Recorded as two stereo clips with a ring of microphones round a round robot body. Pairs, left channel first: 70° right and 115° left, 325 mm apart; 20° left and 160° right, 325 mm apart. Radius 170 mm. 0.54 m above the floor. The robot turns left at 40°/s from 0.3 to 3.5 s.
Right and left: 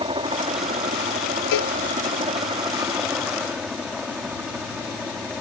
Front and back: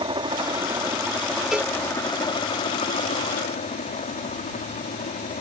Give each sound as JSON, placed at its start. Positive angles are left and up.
{"t": 0.0, "sound": "a helicopter", "azimuth_deg": 155}
{"t": 1.5, "sound": "a cowbell", "azimuth_deg": -70}